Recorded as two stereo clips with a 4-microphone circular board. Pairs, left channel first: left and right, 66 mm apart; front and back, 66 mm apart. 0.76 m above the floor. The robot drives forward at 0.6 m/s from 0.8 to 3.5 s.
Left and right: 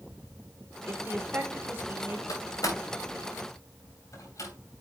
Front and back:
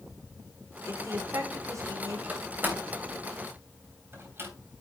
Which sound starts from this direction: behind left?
A door slam, at 2.3 s.